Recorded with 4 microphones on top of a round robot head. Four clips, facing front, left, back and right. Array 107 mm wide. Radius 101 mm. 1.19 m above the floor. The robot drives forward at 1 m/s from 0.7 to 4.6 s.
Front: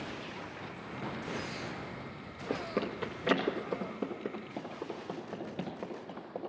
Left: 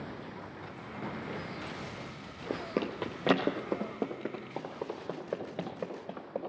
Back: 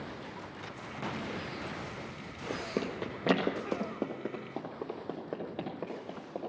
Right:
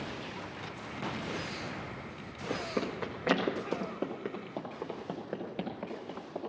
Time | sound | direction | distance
2.5 | running footsteps | 55° left | 1.2 m